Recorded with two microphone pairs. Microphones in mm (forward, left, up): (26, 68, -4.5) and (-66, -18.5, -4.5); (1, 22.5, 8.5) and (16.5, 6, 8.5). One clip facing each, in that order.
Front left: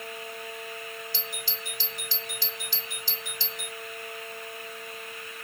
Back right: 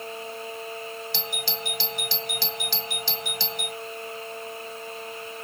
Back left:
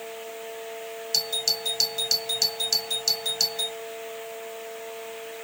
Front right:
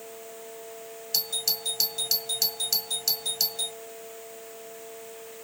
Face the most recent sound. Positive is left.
turn(degrees=-150)